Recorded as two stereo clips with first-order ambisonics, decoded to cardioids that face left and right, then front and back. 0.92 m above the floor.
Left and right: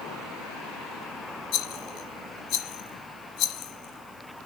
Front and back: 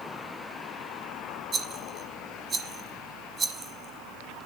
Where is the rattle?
110° left, 1.2 m.